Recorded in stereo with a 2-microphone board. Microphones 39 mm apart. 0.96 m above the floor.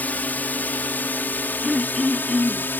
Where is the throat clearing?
10° right (ahead or behind).